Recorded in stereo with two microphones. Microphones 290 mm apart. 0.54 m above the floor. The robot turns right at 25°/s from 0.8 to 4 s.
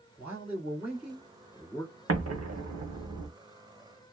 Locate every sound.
0.2 s a man speaking: 10° right (ahead or behind), 1.5 m; by 2.0 s 10° left (ahead or behind), 1.5 m
2.1 s an explosion: 55° right (ahead or behind), 0.7 m; by 3.3 s 85° right, 0.7 m